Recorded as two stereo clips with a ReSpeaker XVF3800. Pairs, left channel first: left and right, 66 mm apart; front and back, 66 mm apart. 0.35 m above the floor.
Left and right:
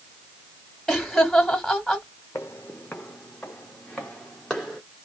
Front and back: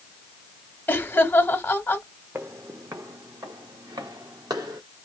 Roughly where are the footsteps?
Behind left.